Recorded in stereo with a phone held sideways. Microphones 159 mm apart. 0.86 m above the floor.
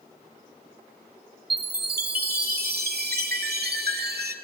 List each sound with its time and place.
1.5 s a chime: 85° right, 1.4 m